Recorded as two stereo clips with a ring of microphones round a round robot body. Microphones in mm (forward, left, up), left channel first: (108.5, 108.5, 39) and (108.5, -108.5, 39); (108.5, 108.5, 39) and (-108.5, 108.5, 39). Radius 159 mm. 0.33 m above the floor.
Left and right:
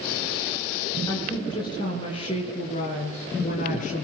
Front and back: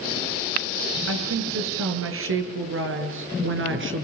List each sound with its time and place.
1.1 s a woman speaking: 170° left, 6.5 m; by 4.0 s 155° left, 5.5 m